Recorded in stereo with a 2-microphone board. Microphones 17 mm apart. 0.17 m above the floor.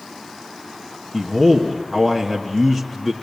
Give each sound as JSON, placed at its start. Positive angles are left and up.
{"t": 1.1, "sound": "a man speaking", "side_deg": 10, "distance_m": 1.4}